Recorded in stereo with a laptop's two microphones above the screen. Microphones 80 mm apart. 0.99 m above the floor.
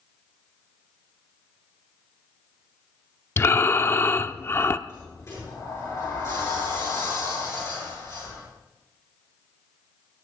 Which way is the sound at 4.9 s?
40° left (ahead or behind).